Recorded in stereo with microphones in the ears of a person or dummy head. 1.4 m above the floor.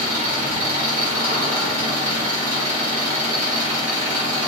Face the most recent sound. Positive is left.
turn(degrees=-20)  # may be behind; listen again after turning